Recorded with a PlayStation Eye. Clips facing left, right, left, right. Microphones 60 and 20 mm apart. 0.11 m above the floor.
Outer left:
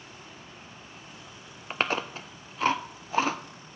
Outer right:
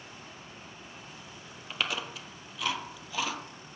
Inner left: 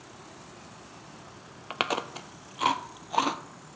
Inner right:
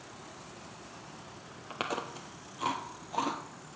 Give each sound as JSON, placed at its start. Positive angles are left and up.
{"t": 1.7, "sound": "chewing", "side_deg": 40, "distance_m": 0.6}